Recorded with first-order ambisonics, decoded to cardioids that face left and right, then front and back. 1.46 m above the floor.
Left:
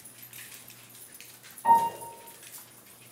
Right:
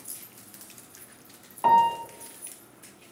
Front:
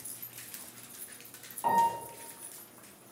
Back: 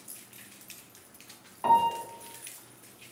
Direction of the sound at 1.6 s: 105° right.